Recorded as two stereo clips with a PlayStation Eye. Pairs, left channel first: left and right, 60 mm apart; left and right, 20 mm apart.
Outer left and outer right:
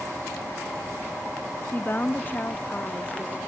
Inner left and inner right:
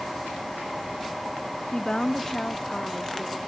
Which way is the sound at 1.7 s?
35° left (ahead or behind).